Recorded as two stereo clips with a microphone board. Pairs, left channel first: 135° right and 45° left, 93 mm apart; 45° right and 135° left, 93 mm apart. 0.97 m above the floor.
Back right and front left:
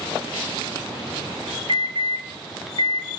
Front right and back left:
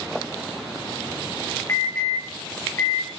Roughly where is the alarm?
Ahead.